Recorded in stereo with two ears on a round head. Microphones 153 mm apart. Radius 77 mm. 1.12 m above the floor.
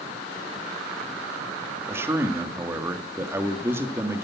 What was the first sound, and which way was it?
A man speaking, 15° right (ahead or behind).